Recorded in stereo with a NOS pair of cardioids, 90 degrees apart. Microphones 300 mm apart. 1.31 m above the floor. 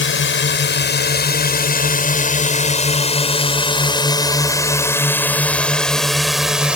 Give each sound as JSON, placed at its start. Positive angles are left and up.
{"t": 0.0, "sound": "a drone", "azimuth_deg": 40}